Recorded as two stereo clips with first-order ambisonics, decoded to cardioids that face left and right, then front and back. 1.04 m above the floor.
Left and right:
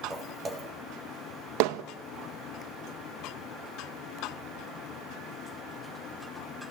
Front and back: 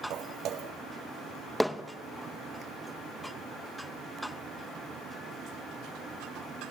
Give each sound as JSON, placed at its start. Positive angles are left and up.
{"t": 0.1, "sound": "footsteps", "azimuth_deg": -150, "distance_m": 1.6}
{"t": 1.6, "sound": "hammering", "azimuth_deg": -90, "distance_m": 0.7}